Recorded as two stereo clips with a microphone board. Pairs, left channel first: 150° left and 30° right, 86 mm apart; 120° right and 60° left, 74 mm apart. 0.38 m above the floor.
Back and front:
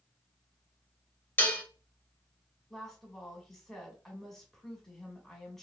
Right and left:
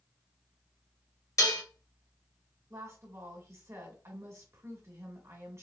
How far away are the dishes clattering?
About 1.3 m.